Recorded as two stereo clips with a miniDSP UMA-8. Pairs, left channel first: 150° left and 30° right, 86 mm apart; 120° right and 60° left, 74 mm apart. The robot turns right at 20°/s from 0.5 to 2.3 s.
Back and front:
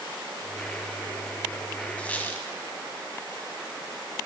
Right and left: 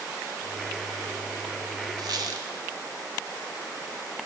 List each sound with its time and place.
2.0 s a squeak: 75° left, 1.2 m; by 2.5 s 80° left, 1.2 m